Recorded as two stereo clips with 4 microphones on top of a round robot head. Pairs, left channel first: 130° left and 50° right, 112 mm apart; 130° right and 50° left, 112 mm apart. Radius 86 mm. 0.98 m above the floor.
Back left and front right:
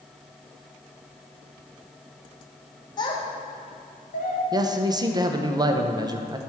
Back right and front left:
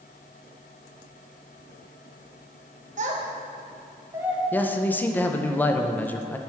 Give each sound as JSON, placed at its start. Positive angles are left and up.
{"t": 3.0, "sound": "a child speaking", "azimuth_deg": 75, "distance_m": 1.4}
{"t": 4.5, "sound": "a man speaking", "azimuth_deg": -65, "distance_m": 0.8}